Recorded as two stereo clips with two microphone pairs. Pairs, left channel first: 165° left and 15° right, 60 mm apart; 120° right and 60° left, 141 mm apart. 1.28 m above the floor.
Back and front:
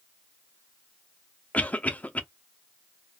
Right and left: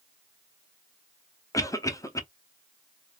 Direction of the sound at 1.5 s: 165° right.